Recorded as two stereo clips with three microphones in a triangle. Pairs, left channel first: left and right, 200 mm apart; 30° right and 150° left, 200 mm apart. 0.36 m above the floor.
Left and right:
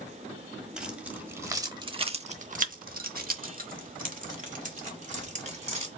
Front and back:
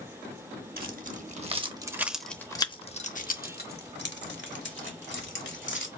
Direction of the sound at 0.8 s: 175° right.